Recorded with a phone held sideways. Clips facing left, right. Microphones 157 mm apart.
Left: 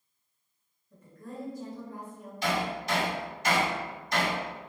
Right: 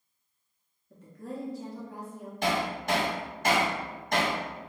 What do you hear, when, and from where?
0.9 s a woman speaking: 70° right (ahead or behind), 1.2 m
2.4 s hammering: 50° right (ahead or behind), 1.3 m